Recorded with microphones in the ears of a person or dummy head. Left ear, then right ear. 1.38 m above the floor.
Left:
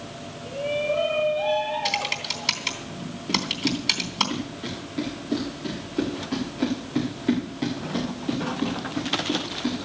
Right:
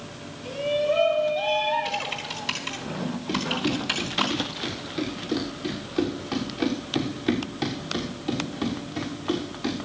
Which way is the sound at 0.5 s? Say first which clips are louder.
Right 2 dB; 60° right (ahead or behind).